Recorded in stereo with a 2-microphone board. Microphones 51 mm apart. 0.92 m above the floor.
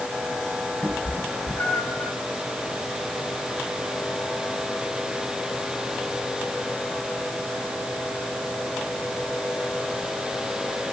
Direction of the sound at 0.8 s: 20° left (ahead or behind).